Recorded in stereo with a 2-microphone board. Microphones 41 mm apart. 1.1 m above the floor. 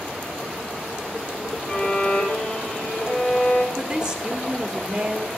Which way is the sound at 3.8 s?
20° right (ahead or behind).